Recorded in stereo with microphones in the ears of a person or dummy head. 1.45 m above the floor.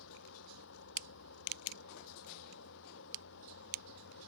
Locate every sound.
0.0 s a fan: 75° left (ahead or behind)